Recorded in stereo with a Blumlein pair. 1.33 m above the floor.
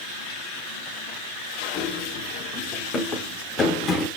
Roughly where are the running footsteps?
Ahead left.